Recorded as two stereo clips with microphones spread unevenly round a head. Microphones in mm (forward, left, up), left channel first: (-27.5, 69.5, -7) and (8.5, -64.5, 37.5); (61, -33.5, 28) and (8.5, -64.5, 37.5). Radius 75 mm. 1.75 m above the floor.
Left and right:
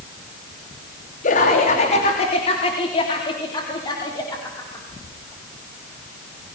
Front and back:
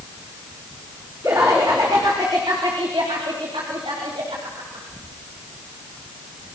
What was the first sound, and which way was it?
Laughter, 145° left.